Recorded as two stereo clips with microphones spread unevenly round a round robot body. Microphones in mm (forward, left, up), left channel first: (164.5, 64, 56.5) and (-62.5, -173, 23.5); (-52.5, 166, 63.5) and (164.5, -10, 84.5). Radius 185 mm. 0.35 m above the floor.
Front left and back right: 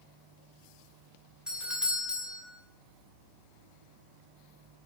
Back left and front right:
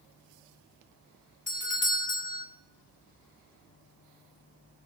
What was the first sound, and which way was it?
A doorbell, 150° left.